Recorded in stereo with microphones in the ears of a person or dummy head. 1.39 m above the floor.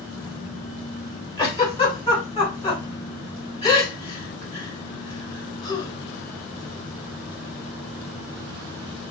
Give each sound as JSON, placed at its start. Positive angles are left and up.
{"t": 1.4, "sound": "a giggle", "side_deg": 25, "distance_m": 1.7}